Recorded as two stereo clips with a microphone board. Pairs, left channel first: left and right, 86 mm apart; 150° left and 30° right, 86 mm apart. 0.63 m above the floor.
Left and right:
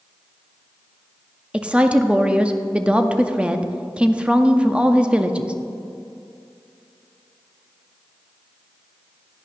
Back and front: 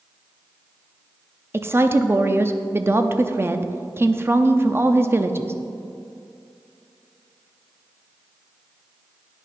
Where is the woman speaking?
30° right, 0.6 m.